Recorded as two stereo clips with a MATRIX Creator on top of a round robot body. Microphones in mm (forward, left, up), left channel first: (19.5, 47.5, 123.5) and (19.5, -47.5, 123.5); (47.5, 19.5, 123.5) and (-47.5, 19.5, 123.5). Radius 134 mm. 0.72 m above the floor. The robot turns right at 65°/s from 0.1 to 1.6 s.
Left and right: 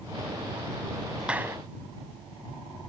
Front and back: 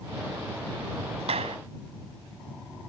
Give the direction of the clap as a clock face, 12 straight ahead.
6 o'clock.